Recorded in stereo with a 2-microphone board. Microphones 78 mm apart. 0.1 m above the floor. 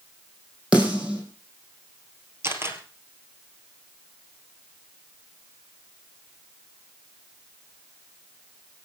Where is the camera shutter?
30° right (ahead or behind), 2.5 m.